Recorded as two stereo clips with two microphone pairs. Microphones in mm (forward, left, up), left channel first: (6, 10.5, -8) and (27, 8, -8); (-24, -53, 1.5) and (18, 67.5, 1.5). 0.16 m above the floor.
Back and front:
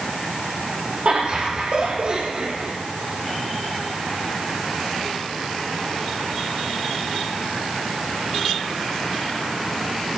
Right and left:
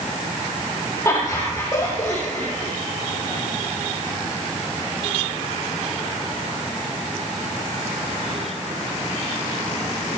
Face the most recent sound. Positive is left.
turn(degrees=-30)